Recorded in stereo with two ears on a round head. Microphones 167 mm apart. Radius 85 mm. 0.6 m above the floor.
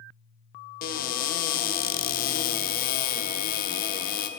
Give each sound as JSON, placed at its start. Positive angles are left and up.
{"t": 0.8, "sound": "a cupboard door", "side_deg": 50, "distance_m": 1.1}